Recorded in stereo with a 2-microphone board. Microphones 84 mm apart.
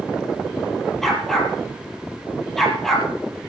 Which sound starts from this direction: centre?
A dog barking, at 1.0 s.